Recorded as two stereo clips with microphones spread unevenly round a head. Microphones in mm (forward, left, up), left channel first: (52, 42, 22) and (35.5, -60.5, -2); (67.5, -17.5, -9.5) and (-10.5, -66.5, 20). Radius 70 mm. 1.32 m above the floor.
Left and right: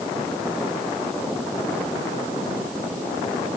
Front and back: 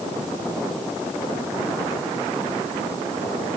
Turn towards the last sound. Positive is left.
No sound to turn to.